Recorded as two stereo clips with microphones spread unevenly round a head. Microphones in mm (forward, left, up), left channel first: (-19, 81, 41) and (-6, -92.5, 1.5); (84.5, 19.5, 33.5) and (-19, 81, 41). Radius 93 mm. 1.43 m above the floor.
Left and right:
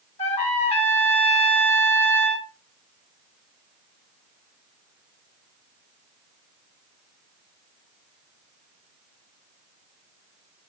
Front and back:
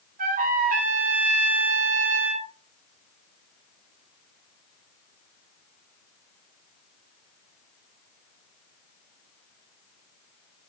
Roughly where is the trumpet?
Behind left.